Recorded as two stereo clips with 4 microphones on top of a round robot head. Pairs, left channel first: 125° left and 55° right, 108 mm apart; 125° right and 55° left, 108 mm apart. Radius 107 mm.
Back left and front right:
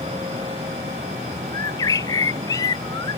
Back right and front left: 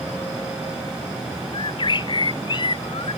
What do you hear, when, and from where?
1.5 s a bird: 175° right